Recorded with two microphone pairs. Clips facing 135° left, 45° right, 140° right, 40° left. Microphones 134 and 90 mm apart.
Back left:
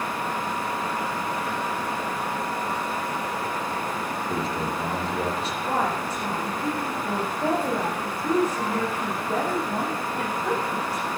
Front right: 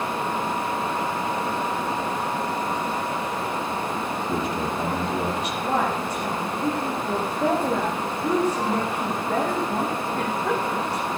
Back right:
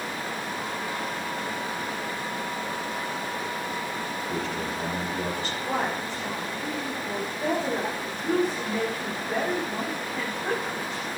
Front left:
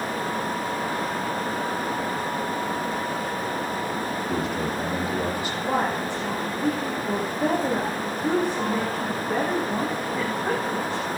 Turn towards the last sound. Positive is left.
turn(degrees=-40)